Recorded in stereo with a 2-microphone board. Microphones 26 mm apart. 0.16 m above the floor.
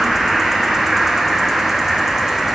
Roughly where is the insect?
Centre.